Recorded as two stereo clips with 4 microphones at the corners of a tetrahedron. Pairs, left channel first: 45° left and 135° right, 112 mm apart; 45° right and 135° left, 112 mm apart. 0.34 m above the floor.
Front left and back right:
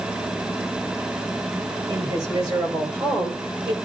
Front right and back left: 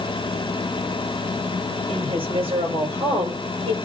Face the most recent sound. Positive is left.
turn(degrees=175)